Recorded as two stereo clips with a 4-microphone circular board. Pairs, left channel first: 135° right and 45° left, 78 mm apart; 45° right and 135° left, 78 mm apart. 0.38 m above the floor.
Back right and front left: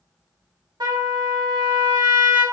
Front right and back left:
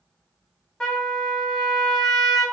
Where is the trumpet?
40° left, 0.8 m.